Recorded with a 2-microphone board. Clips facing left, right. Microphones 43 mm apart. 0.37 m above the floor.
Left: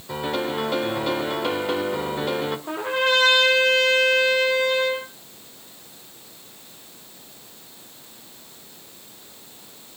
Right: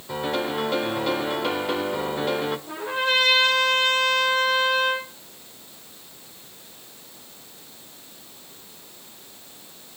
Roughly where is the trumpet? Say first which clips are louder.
Left 5 dB; left.